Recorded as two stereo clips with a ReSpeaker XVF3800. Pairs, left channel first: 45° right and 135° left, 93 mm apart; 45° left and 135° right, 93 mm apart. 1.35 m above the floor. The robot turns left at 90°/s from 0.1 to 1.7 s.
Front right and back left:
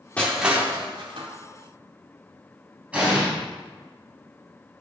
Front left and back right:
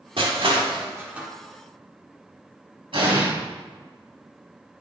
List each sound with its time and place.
0.2 s crushing: 120° right, 2 m; by 1.3 s 140° left, 2 m
2.9 s an explosion: 150° right, 4 m